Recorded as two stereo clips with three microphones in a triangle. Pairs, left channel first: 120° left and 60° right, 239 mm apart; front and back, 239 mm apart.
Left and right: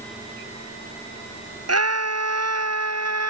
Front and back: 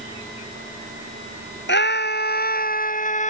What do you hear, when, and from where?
1.7 s a scream: 45° right; by 3.3 s 60° right